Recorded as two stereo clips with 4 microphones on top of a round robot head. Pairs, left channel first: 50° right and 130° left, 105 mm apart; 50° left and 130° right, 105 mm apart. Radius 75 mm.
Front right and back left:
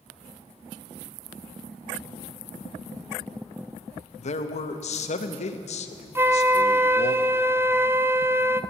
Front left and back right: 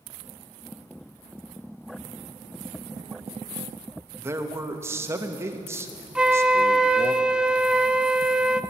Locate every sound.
4.2 s a man speaking: 60° right, 0.9 m
6.2 s a flute: 160° left, 0.5 m